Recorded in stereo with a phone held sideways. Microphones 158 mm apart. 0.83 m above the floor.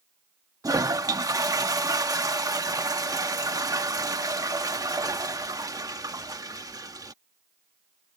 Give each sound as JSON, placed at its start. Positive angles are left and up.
{"t": 0.6, "sound": "a toilet flushing", "side_deg": -20}